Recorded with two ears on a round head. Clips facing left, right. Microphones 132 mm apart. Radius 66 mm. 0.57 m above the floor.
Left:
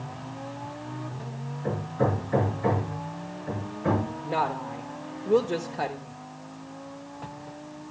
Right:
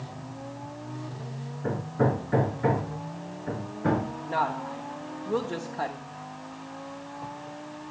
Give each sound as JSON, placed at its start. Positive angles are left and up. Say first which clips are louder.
{"t": 1.6, "sound": "hammering", "louder": "right 1 dB", "side_deg": -50, "distance_m": 5.0}
{"t": 4.2, "sound": "a woman speaking", "louder": "even", "side_deg": 20, "distance_m": 0.8}